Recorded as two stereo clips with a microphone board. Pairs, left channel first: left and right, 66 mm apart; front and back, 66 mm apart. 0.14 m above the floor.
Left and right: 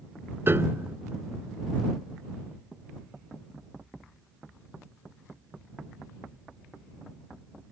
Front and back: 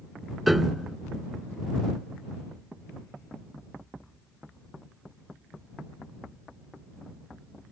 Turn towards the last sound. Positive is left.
turn(degrees=-95)